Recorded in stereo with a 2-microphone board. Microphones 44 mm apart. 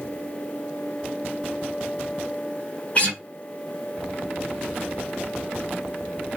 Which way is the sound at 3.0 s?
30° left (ahead or behind).